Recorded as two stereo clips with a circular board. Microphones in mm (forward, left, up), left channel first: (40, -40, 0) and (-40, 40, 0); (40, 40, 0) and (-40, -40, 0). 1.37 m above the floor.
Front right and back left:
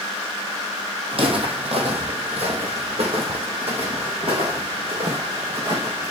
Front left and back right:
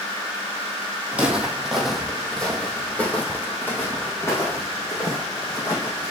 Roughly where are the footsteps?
Behind left.